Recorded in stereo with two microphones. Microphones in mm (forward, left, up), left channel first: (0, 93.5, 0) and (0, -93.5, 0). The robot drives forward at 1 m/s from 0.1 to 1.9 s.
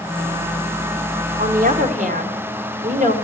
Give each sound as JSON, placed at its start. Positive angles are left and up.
{"t": 1.4, "sound": "a woman speaking", "side_deg": -55, "distance_m": 1.0}